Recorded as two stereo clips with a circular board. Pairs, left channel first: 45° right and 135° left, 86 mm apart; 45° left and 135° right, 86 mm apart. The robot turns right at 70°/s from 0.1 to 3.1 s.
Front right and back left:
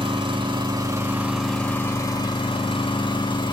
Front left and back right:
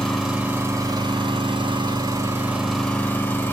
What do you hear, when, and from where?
0.0 s an engine running: 125° left, 1.9 m; by 3.5 s 25° right, 1.9 m